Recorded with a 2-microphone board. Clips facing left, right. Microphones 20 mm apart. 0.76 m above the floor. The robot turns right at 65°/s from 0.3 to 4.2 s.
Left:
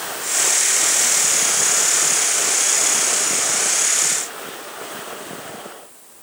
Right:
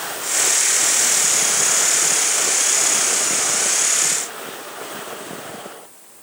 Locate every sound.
Only background noise.